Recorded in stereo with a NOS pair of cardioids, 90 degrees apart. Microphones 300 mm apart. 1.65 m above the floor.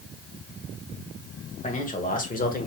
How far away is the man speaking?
About 1.9 m.